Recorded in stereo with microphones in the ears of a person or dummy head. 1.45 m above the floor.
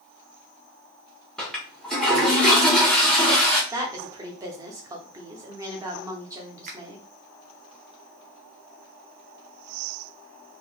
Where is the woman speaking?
15° right (ahead or behind), 0.8 m.